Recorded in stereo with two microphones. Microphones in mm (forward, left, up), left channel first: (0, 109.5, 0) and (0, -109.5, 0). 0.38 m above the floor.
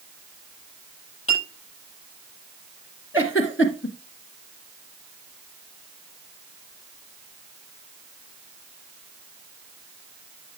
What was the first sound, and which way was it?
A clink, 75° left (ahead or behind).